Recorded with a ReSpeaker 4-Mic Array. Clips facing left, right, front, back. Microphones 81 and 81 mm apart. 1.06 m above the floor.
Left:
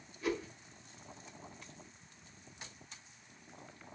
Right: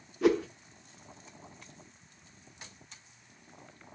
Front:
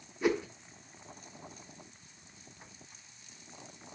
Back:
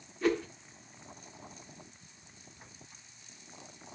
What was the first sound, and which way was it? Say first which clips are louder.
A whoosh: right 11 dB, even; 75° right.